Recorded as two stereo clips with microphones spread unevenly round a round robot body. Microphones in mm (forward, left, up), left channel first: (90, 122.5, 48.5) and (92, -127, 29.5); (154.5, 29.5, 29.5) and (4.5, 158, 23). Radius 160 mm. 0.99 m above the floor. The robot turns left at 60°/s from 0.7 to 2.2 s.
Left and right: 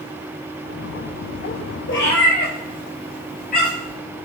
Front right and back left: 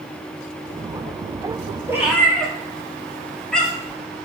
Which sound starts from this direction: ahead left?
A cat meowing, at 1.9 s.